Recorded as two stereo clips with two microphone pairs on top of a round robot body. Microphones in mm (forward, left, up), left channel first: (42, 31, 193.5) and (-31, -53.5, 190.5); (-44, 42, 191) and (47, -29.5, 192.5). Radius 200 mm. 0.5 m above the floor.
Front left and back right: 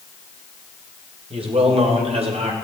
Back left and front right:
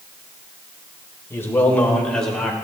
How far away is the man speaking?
About 3 m.